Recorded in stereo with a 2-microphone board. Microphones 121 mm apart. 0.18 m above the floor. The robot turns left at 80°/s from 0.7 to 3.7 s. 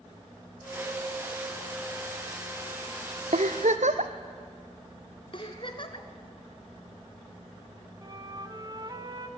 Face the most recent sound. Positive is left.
turn(degrees=-35)  # may be behind; listen again after turning